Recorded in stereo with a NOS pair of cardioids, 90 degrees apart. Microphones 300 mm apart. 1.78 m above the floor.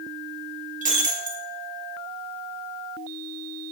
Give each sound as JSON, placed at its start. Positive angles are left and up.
{"t": 0.8, "sound": "breaking glass", "azimuth_deg": -25, "distance_m": 3.0}